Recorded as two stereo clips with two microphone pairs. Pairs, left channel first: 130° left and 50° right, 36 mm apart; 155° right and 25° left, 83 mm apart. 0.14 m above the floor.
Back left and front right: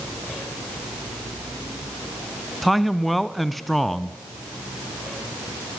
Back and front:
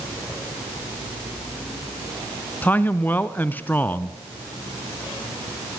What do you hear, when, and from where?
2.6 s a man speaking: 150° right, 1.1 m